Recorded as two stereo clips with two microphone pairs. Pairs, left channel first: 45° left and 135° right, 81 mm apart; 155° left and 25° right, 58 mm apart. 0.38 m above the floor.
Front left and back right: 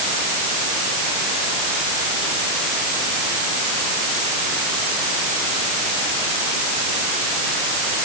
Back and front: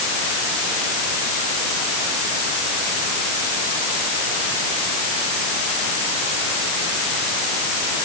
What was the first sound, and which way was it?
Only background noise.